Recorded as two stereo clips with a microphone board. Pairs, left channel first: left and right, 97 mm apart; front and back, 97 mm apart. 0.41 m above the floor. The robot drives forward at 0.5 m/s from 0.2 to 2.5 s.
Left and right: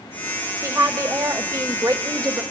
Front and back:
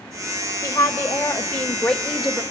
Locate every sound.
0.6 s a woman speaking: 40° right, 1.4 m; by 2.4 s 100° right, 1.2 m